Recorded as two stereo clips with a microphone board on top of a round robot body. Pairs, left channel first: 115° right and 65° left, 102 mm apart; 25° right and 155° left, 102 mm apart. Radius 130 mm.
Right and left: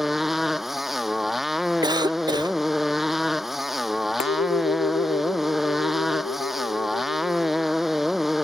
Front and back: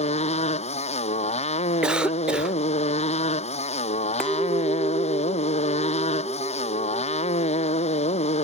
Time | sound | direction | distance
0.0 | a motorcycle | 20° right | ?
1.8 | a cough | 80° left | ?
4.2 | a clink | 105° right | ?